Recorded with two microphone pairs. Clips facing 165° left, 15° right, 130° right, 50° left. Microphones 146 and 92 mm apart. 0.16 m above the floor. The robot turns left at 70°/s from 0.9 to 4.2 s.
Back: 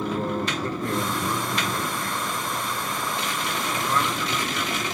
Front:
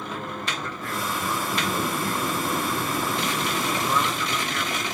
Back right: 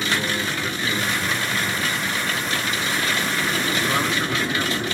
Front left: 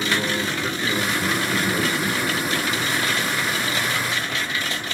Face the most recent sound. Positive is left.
turn(degrees=-110)